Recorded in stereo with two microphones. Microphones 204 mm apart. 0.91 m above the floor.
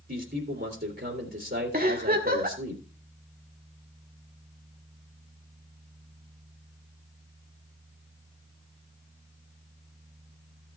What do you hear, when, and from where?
0.1 s a man speaking: 65° right (ahead or behind), 3 m
1.7 s a giggle: 45° right (ahead or behind), 2 m